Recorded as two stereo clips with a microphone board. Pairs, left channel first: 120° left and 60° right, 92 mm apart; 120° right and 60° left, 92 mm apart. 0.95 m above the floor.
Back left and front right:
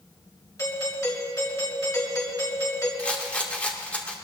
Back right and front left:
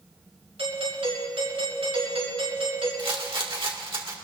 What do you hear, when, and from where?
0.6 s a doorbell: 70° left, 6 m
3.0 s a rattle: 45° left, 1.9 m